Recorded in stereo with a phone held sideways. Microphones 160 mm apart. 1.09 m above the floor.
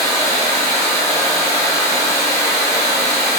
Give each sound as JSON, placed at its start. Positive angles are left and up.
{"t": 0.0, "sound": "running water", "side_deg": 15, "distance_m": 1.0}